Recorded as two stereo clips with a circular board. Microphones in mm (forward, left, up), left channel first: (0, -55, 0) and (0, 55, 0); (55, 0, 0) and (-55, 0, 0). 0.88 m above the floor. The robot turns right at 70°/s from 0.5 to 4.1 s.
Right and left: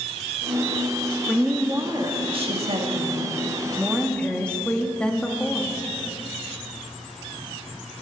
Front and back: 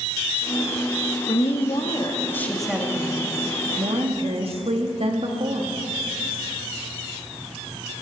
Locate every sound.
1.3 s a woman speaking: 5° right, 1.7 m; by 5.8 s 170° right, 1.7 m